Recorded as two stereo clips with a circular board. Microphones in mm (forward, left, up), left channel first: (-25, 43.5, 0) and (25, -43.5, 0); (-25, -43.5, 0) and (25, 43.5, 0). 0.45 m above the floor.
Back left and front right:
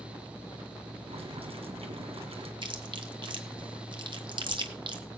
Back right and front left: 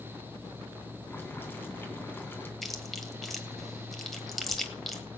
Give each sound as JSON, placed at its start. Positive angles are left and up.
{"t": 1.1, "sound": "boiling", "azimuth_deg": -50, "distance_m": 2.5}
{"t": 2.6, "sound": "chewing", "azimuth_deg": -30, "distance_m": 1.6}